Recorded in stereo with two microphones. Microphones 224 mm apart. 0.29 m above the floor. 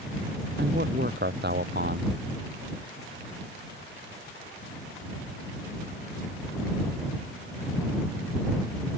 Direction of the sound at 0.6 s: 50° right (ahead or behind).